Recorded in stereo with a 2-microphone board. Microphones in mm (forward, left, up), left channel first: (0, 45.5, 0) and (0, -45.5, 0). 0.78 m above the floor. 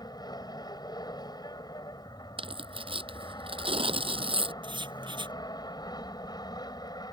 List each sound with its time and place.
0.0 s an aircraft: 45° left (ahead or behind)
2.4 s tearing paper: 75° right (ahead or behind)
4.6 s writing: 60° right (ahead or behind)